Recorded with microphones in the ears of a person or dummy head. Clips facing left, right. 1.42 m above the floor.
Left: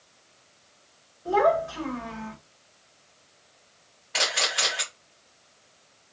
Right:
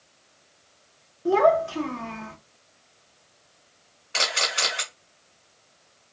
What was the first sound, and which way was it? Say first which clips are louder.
A child speaking: right 3 dB; 50° right (ahead or behind).